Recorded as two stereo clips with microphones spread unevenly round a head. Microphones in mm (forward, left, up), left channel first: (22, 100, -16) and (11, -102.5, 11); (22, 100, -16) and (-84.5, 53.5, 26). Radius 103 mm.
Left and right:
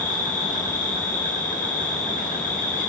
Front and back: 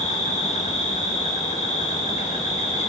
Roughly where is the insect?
Ahead left.